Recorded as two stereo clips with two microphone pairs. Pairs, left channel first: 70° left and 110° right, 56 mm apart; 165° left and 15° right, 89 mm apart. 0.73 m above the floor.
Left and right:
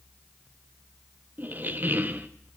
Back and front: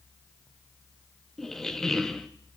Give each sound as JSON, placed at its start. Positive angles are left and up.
{"t": 1.4, "sound": "a squeak", "azimuth_deg": -105, "distance_m": 0.6}